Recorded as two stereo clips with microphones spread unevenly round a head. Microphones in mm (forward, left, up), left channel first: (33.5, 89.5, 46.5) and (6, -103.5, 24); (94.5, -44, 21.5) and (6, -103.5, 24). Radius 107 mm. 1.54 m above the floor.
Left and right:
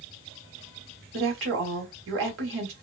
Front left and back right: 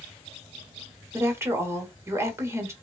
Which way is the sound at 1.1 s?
80° right.